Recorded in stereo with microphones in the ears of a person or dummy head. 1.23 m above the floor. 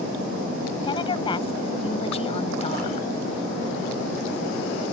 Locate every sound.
0.8 s a woman speaking: 25° left (ahead or behind); by 3.1 s 40° left (ahead or behind)